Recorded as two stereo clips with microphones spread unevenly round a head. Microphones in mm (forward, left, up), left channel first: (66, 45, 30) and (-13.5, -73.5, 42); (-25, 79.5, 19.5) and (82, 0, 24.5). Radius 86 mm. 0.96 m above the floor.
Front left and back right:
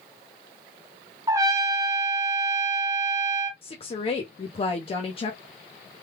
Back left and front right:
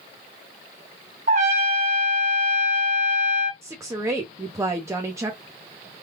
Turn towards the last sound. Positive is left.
turn(degrees=30)